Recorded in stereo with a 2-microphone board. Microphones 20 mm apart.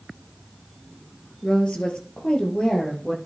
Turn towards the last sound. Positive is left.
turn(degrees=50)  # may be behind; listen again after turning